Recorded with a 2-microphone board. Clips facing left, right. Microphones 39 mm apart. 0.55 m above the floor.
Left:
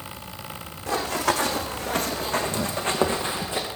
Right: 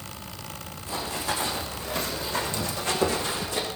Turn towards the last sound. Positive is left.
turn(degrees=25)  # may be behind; listen again after turning